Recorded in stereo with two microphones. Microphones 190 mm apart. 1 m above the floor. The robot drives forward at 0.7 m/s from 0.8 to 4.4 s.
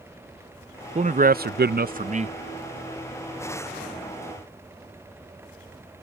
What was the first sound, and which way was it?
A man speaking, 40° right (ahead or behind).